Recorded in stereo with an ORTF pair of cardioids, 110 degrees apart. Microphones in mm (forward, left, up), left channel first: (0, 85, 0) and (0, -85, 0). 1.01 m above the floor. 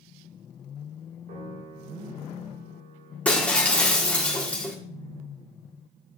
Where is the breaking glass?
5° left, 1.6 m.